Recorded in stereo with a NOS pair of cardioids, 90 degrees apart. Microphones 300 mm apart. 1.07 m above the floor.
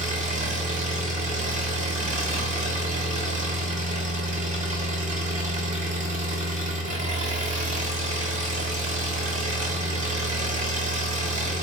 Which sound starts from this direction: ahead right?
An engine running, at 0.0 s.